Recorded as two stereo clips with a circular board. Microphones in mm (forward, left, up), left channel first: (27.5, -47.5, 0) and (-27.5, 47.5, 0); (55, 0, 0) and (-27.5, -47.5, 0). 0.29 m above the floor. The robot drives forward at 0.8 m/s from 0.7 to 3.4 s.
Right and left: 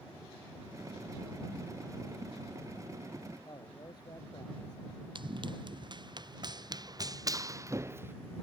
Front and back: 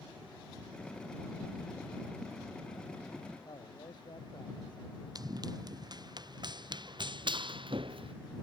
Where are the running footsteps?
165° left; by 8.2 s 170° right.